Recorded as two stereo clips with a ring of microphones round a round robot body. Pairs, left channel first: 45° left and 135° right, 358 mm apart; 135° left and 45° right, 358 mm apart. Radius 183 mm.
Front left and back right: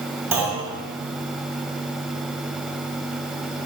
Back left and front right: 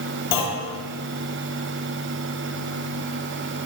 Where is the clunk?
140° left, 1.7 m.